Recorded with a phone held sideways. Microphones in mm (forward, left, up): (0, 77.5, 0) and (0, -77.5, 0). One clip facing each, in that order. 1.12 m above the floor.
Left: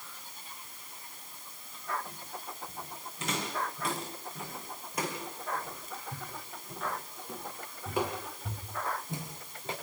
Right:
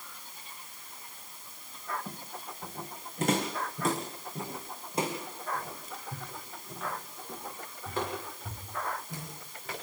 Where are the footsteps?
65° right (ahead or behind), 6 m; by 9.7 s 25° left (ahead or behind), 7.5 m.